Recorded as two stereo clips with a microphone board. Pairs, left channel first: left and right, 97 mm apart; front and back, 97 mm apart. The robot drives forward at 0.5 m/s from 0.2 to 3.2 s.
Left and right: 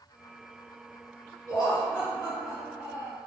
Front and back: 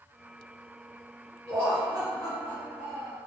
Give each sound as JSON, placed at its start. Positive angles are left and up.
{"t": 1.5, "sound": "laughter", "azimuth_deg": 115, "distance_m": 1.9}